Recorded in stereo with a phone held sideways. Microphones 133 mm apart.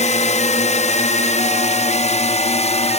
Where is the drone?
60° left (ahead or behind); by 3.0 s 55° left (ahead or behind).